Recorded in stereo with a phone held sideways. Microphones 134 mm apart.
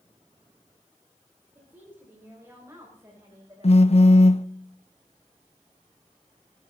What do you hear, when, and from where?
1.6 s a woman speaking: 20° right (ahead or behind), 5.5 m; by 4.2 s 30° right (ahead or behind), 7 m
3.6 s a phone buzzing: 50° left (ahead or behind), 0.6 m